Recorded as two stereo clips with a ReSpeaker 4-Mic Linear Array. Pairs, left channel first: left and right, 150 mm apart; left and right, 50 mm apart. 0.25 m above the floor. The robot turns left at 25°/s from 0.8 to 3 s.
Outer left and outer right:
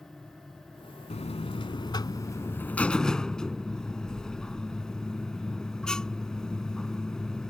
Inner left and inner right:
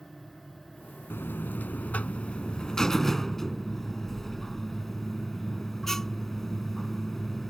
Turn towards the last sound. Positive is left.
turn(degrees=5)